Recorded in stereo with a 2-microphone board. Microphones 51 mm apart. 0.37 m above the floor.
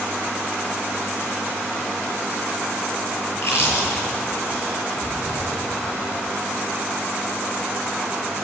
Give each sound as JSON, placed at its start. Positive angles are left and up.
{"t": 3.3, "sound": "chewing", "side_deg": 55, "distance_m": 7.5}